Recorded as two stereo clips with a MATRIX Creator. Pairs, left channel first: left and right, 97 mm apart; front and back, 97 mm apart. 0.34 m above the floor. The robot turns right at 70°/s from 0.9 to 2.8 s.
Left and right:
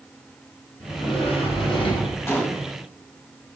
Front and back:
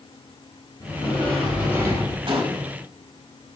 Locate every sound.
0.8 s a sliding door: 45° left, 1.7 m; by 2.2 s 135° left, 1.7 m
2.3 s a gunshot: 155° left, 0.7 m; by 2.7 s 175° right, 0.7 m